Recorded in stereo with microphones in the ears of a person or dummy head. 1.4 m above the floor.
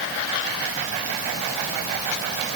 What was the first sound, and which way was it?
Only background noise.